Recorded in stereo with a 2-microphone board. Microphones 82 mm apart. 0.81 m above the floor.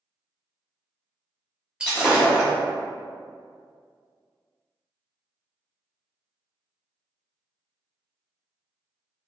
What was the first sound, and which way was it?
Breaking glass, 10° right (ahead or behind).